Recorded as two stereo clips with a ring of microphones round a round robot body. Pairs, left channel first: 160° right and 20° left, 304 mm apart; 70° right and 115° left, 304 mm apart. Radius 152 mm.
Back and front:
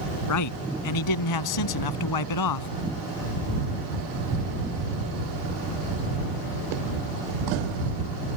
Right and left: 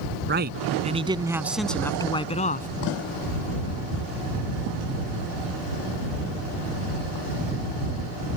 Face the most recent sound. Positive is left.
turn(degrees=-130)